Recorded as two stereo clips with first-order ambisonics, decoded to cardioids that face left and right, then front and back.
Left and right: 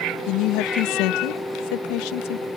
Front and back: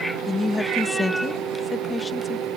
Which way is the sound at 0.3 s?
80° left.